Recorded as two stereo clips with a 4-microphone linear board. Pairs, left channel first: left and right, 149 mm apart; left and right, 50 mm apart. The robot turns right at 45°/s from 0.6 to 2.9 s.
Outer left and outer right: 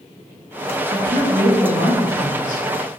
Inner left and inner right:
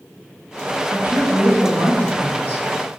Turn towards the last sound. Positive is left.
turn(degrees=-50)